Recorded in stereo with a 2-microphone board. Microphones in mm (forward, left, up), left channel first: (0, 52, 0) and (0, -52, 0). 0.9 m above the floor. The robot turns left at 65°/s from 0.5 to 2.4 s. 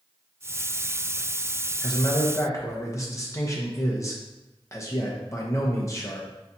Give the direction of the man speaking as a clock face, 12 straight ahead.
9 o'clock.